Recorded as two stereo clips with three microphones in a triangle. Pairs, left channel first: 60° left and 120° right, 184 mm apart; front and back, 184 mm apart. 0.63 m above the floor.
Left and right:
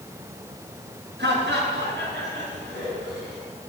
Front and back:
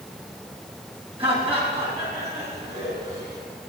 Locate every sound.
1.2 s laughter: 120° right, 4.5 m; by 3.4 s 125° right, 5.5 m